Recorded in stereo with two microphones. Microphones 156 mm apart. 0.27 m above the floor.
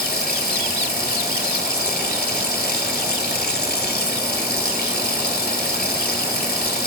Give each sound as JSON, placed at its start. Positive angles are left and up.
{"t": 0.0, "sound": "running water", "side_deg": 80, "distance_m": 1.3}